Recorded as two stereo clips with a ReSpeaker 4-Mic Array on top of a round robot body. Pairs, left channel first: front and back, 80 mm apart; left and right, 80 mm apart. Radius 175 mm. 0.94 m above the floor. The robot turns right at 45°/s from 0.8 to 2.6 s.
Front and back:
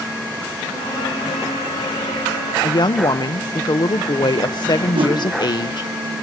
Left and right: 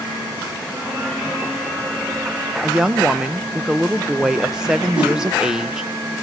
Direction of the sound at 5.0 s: 165° right.